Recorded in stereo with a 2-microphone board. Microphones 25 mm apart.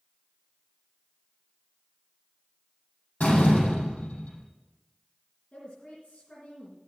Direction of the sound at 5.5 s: 70° left (ahead or behind).